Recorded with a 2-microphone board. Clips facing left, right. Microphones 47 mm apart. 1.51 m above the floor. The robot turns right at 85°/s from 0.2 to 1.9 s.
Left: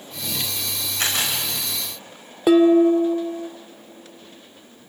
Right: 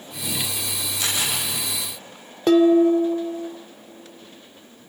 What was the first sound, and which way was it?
A camera shutter, 50° left (ahead or behind).